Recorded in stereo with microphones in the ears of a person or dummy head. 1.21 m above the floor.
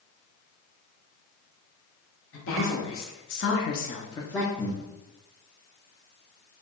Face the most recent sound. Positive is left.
turn(degrees=10)  # may be behind; listen again after turning